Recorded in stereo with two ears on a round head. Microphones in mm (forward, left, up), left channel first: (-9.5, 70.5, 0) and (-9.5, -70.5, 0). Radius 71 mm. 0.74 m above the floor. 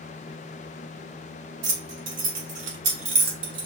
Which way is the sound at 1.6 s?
65° right (ahead or behind).